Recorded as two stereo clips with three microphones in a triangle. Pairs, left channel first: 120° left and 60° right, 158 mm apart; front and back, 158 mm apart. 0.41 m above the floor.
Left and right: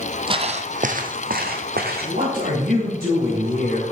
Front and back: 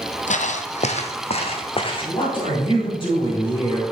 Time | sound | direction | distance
0.3 | footsteps | 10° right | 0.6 m
2.0 | a man speaking | 55° right | 2.5 m